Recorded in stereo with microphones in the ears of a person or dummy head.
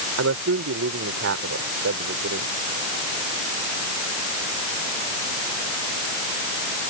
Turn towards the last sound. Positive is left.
turn(degrees=-65)  # may be behind; listen again after turning